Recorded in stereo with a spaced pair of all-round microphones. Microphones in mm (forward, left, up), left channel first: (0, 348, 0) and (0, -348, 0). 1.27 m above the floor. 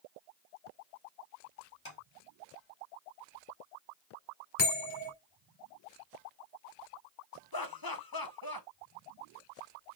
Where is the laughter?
30° left (ahead or behind), 1.0 m.